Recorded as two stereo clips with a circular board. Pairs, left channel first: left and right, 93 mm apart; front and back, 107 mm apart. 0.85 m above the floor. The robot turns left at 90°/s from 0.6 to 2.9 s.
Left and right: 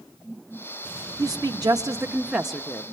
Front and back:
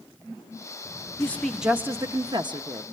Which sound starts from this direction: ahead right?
A woman speaking, at 1.2 s.